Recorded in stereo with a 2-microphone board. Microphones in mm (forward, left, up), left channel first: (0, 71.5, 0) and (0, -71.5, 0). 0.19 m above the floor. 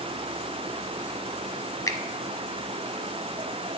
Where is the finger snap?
25° left (ahead or behind), 0.9 m.